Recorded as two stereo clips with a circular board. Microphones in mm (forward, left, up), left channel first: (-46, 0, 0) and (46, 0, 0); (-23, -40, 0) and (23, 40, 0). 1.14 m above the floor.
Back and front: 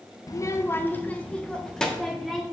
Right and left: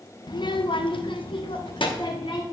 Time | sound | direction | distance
0.3 | a child speaking | 140° right | 0.6 m